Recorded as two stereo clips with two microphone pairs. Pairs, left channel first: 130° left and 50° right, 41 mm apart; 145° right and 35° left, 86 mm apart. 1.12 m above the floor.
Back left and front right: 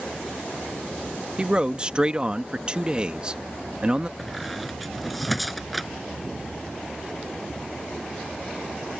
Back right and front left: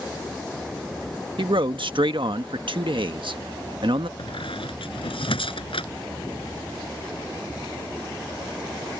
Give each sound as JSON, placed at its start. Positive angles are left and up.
{"t": 1.4, "sound": "a man speaking", "azimuth_deg": 15}
{"t": 4.2, "sound": "a squeak", "azimuth_deg": -140}